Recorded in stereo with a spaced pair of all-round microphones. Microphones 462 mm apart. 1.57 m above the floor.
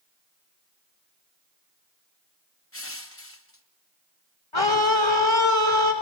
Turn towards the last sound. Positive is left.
turn(degrees=80)